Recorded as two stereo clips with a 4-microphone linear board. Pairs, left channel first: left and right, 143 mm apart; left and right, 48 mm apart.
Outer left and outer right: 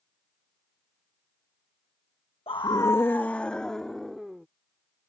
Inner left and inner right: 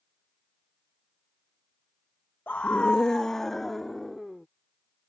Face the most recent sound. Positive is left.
turn(degrees=0)  # may be behind; listen again after turning